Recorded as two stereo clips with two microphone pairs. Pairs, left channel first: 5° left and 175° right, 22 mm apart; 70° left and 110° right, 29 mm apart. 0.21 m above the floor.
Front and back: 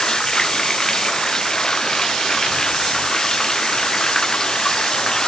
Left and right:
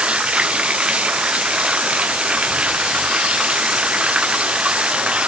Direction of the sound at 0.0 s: 60° right.